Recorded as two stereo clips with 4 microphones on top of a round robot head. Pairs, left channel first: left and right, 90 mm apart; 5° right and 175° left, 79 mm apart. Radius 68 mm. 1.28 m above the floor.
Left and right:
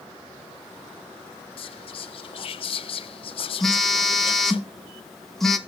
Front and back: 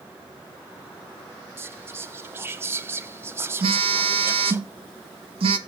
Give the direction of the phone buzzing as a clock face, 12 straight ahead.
6 o'clock.